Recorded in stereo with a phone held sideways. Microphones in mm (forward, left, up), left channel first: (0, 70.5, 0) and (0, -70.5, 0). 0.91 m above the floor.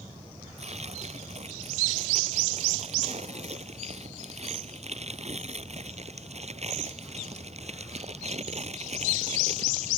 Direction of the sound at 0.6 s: 50° right (ahead or behind).